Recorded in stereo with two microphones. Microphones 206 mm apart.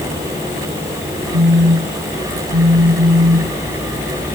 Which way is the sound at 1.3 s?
85° right.